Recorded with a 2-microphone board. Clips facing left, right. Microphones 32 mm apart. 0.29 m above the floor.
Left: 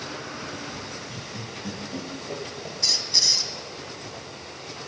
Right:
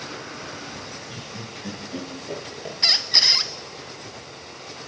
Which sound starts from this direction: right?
A squeak, at 2.8 s.